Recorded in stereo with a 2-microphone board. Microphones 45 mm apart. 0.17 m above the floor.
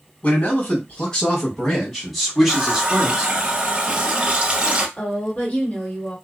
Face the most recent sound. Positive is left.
turn(degrees=35)  # may be behind; listen again after turning